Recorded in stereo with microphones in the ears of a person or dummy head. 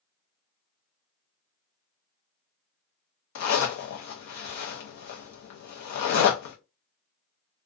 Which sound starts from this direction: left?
A zipper, at 3.4 s.